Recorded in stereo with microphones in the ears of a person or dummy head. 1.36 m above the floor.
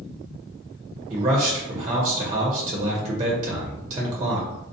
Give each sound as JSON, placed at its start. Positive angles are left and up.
{"t": 1.1, "sound": "a man speaking", "side_deg": -30, "distance_m": 0.6}